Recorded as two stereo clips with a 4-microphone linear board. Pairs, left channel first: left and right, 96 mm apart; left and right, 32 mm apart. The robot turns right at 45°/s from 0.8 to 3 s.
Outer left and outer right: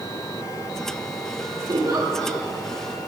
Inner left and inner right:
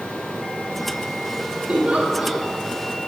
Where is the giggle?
65° right, 1.8 m; by 2.4 s 35° right, 1.8 m.